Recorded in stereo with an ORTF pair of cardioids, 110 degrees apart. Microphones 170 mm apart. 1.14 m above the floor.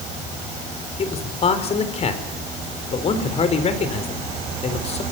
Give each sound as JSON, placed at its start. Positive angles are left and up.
{"t": 1.0, "sound": "a man speaking", "azimuth_deg": 35, "distance_m": 4.0}